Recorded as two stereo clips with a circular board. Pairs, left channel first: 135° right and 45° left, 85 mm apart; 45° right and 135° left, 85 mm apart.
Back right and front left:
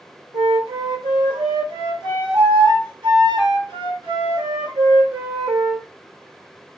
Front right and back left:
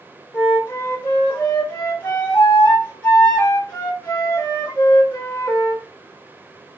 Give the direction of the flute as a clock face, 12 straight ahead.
11 o'clock.